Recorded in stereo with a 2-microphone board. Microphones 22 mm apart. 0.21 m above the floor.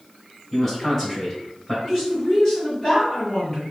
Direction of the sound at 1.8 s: 20° left (ahead or behind).